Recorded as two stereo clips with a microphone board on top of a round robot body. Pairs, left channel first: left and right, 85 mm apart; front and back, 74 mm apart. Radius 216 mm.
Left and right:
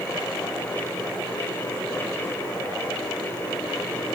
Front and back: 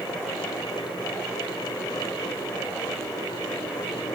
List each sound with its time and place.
Only background noise.